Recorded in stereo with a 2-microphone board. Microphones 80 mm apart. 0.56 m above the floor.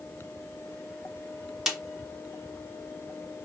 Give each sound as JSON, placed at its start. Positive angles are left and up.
{"t": 1.7, "sound": "a snare drum", "side_deg": -5, "distance_m": 0.8}